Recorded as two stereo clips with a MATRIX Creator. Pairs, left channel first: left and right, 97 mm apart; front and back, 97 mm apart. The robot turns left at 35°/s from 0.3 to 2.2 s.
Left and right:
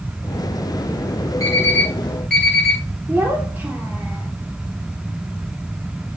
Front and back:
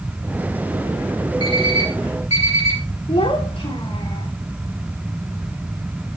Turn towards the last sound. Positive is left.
turn(degrees=-20)